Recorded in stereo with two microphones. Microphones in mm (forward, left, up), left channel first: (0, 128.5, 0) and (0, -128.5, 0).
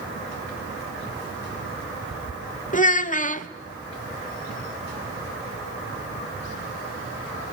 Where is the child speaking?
30° left (ahead or behind), 0.7 m.